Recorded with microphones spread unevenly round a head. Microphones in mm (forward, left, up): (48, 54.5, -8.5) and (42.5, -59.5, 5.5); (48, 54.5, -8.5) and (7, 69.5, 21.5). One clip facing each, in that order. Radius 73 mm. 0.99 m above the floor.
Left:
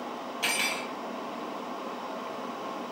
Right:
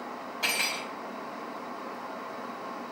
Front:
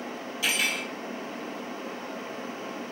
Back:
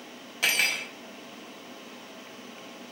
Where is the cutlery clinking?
170° left, 1.0 m.